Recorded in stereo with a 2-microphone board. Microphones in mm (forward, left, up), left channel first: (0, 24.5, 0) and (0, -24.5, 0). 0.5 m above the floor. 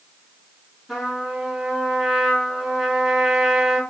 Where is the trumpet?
Centre (ahead or behind), 5.5 m.